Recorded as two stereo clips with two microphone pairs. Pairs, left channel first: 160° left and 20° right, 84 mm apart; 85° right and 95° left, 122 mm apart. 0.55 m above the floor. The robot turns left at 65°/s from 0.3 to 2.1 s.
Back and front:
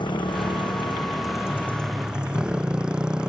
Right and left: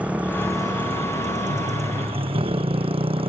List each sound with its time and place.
0.0 s a motorcycle: 175° left; by 3.3 s 60° left